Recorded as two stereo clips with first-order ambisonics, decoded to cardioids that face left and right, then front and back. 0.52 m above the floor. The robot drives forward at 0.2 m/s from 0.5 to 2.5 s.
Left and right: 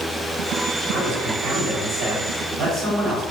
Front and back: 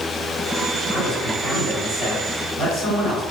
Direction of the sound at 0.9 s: 110° right.